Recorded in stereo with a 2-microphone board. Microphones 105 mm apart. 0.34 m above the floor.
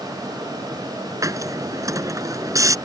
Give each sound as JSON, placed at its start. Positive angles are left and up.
{"t": 1.2, "sound": "a hiss", "side_deg": -30}